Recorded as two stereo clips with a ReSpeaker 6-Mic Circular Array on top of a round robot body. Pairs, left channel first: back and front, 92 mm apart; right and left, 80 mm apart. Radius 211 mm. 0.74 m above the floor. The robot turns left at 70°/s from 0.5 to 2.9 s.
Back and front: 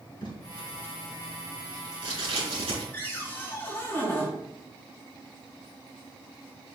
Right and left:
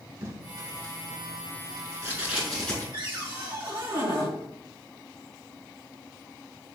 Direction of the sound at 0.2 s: 140° left.